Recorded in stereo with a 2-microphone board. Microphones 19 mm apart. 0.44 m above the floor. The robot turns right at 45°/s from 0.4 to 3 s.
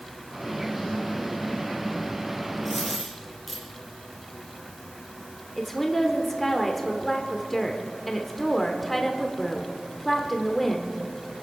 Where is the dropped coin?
15° right (ahead or behind), 5.5 m; by 3.6 s centre (ahead or behind), 5.5 m.